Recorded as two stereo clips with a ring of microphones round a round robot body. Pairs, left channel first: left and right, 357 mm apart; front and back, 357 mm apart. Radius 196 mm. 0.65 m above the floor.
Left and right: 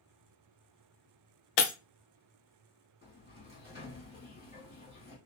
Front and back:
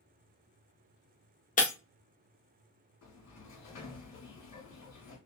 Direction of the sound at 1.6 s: 70° left.